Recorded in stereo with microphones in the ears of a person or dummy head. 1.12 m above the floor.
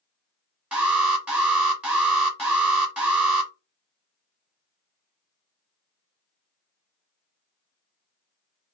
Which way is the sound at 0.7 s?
5° right (ahead or behind).